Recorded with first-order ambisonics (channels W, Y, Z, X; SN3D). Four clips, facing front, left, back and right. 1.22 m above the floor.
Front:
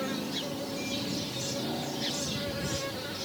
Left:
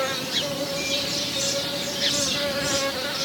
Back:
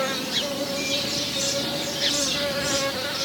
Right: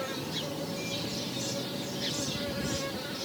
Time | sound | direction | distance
0.0 | an insect | 130° left | ?